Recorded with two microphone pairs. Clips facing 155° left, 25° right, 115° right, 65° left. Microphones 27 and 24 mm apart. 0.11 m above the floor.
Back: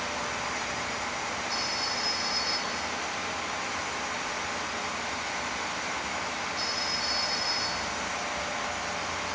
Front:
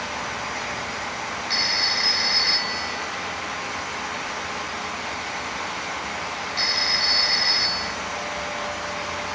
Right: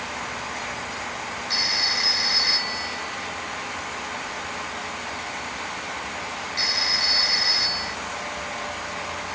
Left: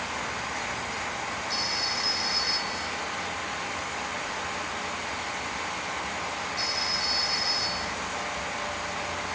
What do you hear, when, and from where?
1.5 s a phone ringing: 65° right